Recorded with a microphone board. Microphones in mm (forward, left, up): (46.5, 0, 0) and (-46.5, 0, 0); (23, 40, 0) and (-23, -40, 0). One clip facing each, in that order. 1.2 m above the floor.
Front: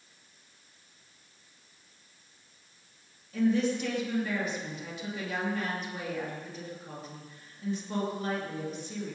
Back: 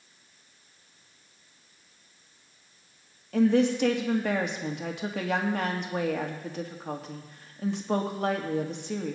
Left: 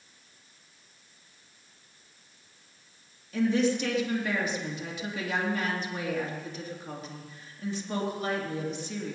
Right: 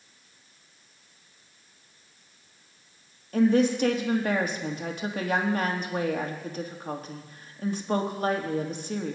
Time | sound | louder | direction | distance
3.3 | a woman speaking | back 4 dB, right 4 dB | 160° right | 2 m